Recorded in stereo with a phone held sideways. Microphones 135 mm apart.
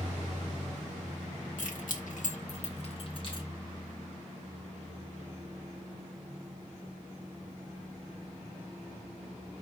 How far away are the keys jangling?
About 0.9 m.